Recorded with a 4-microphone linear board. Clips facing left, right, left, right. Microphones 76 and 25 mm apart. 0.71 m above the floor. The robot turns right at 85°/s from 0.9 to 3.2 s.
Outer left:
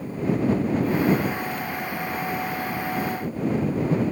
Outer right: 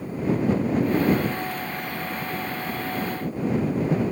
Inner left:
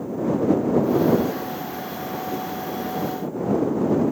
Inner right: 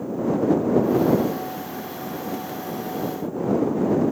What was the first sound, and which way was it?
Only background noise.